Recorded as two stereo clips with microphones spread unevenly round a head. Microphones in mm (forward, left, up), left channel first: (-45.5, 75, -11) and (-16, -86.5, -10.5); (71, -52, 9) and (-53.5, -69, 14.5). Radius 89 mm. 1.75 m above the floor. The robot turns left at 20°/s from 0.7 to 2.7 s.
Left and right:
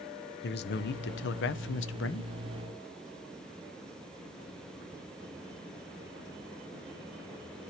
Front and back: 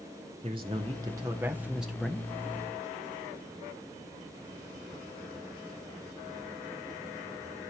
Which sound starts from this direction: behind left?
A man speaking, at 0.4 s.